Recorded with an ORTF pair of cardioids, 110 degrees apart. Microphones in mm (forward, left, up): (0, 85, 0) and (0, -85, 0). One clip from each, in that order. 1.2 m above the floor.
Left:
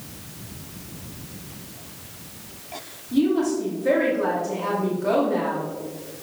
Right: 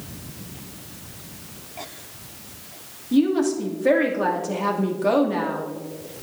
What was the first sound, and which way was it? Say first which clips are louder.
A woman speaking: right 1 dB; 45° right.